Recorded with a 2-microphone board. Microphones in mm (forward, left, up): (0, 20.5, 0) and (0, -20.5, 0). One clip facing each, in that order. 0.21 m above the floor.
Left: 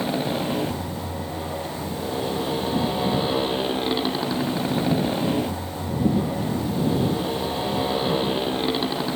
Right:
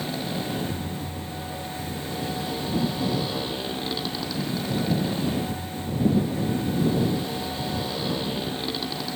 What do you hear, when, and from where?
0.0 s a motorcycle: 30° left (ahead or behind)